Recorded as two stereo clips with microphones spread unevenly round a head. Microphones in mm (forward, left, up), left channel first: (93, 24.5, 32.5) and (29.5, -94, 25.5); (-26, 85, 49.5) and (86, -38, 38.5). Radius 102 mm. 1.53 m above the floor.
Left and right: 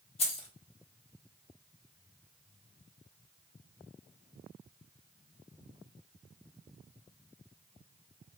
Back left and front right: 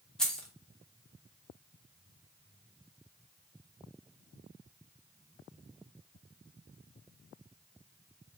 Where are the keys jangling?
50° left, 0.8 m.